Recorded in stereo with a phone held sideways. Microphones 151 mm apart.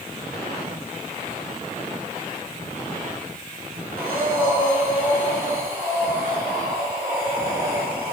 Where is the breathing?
15° right (ahead or behind), 5.5 m.